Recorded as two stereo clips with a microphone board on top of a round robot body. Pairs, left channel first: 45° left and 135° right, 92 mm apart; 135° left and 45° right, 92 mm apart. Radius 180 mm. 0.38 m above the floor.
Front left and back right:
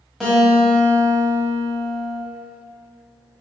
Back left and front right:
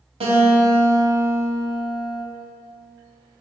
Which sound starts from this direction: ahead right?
A guitar, at 0.2 s.